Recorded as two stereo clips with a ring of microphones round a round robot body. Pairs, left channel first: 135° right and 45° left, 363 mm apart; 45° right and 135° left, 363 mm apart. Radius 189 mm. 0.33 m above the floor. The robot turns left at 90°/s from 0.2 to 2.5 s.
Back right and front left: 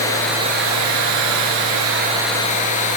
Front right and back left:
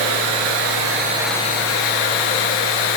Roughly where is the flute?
No flute in this recording.